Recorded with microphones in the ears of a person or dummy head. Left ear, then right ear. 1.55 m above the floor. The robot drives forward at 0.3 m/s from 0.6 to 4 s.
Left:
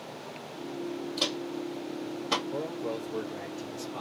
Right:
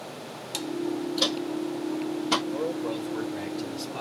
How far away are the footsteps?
About 2 m.